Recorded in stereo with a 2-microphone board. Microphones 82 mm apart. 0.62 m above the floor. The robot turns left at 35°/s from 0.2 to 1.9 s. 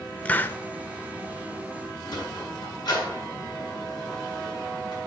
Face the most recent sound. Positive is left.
turn(degrees=55)  # may be behind; listen again after turning